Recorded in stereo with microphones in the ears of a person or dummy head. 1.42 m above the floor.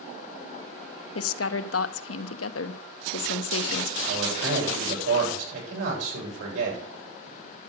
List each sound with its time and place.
1.1 s a woman speaking: 80° left, 0.9 m
4.1 s a man speaking: 80° right, 8 m